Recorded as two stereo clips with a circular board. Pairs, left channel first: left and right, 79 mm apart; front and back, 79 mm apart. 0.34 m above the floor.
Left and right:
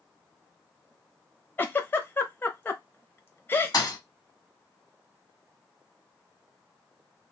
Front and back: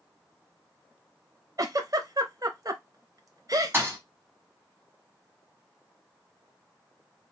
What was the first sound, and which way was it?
A giggle, 150° left.